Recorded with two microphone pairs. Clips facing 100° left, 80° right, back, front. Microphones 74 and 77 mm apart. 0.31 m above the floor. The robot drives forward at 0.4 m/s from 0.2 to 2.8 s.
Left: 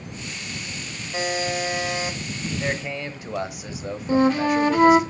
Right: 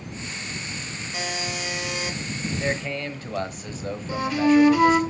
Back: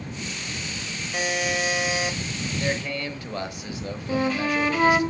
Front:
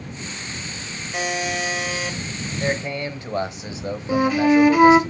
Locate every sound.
1.1 s a buzzer: 90° left, 1.5 m; by 2.2 s 115° left, 1.5 m
2.6 s a man speaking: 25° left, 0.9 m; by 5.1 s 30° left, 0.9 m
4.1 s a flute: 70° left, 1.0 m